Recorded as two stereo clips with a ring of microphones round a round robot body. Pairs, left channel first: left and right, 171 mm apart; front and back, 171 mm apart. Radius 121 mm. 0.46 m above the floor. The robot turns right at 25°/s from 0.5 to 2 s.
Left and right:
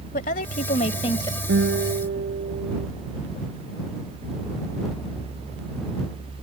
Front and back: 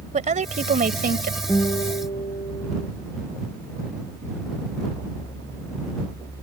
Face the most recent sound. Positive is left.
turn(degrees=-65)